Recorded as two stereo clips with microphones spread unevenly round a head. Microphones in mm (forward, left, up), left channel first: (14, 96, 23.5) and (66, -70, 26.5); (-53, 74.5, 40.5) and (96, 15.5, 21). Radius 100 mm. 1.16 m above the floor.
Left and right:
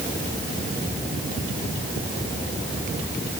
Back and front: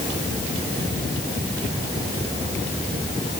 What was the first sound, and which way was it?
Only background noise.